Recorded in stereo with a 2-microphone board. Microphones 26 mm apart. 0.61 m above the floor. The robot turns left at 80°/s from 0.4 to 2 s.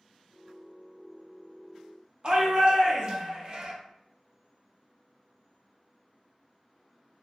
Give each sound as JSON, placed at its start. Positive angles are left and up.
{"t": 2.2, "sound": "a shout", "side_deg": -50, "distance_m": 0.8}